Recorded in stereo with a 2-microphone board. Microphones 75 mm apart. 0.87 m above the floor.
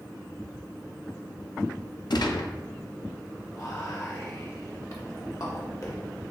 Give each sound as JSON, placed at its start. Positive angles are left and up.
{"t": 2.1, "sound": "a gunshot", "side_deg": 70, "distance_m": 0.5}
{"t": 3.5, "sound": "whispering", "side_deg": 45, "distance_m": 1.4}